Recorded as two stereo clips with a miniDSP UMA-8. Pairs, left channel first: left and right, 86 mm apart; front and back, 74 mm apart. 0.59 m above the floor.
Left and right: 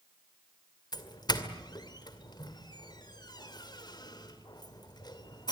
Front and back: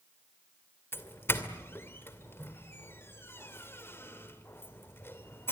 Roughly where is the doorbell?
Ahead left.